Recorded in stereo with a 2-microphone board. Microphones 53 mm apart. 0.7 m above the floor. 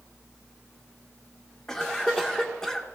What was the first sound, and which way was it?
A cough, 10° left (ahead or behind).